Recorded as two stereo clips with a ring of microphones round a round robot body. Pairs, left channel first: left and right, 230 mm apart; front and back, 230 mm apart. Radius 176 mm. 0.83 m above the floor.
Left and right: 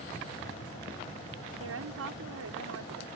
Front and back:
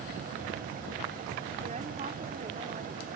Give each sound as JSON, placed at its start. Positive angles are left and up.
{"t": 1.6, "sound": "a woman speaking", "azimuth_deg": -115}